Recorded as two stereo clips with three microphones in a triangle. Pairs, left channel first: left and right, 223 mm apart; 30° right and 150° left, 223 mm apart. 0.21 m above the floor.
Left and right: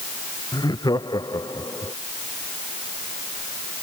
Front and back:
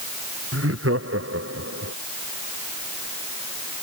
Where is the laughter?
160° left; by 1.9 s 165° left.